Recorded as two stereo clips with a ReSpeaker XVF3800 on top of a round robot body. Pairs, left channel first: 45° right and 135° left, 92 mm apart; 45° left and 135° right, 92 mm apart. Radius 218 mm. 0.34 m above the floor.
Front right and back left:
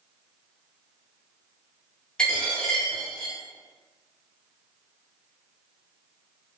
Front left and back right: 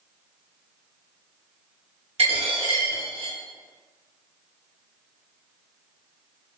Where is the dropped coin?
125° right, 0.7 m.